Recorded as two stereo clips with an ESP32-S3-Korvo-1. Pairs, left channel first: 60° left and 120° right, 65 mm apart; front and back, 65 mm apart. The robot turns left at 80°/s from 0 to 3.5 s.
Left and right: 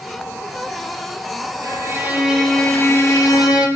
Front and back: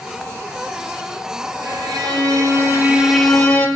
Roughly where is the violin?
Behind right.